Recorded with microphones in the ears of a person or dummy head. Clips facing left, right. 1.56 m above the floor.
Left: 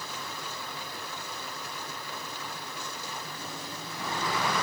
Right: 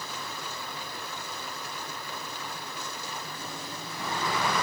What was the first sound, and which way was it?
Only background noise.